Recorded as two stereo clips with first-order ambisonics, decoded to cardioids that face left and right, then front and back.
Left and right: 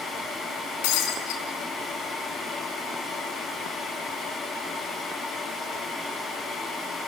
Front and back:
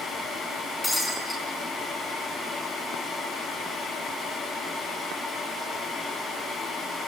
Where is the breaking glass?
85° left, 5.5 m.